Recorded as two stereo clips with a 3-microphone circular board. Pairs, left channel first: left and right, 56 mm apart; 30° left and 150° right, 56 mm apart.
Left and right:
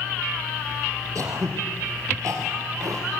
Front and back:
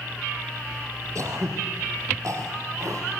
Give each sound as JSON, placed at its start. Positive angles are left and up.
{"t": 1.1, "sound": "throat clearing", "azimuth_deg": -120, "distance_m": 5.0}